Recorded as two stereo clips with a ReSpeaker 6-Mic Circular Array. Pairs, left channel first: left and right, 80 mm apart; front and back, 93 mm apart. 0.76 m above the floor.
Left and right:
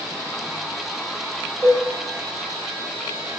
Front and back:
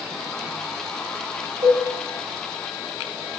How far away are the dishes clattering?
About 1.9 m.